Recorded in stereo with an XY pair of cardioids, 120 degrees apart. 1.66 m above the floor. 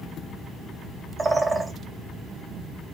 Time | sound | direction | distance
1.2 | a bird | 15° right | 0.6 m